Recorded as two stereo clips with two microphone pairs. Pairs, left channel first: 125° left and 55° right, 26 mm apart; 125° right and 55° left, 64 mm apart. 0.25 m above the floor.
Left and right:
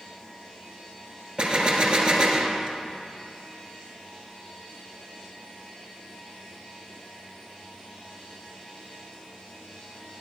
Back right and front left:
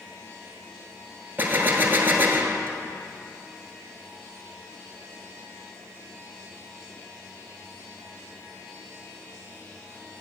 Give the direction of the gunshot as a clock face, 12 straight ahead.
12 o'clock.